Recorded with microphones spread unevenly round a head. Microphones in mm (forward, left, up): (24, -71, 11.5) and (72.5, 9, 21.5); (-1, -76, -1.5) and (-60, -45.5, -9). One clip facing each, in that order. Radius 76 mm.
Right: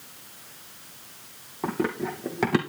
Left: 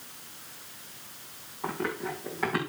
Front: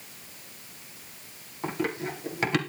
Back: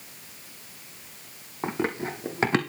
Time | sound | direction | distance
1.6 | running footsteps | 150° right | 3 m